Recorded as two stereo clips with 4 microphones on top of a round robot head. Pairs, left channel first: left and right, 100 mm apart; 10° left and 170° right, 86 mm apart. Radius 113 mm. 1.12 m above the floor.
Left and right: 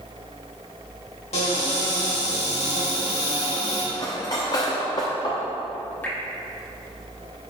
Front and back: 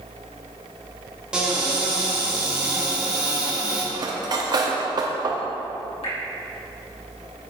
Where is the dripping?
20° left, 2.5 m.